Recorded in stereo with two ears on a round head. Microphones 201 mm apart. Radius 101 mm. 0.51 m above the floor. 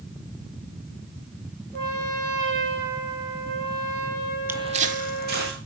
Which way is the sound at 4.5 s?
10° right (ahead or behind).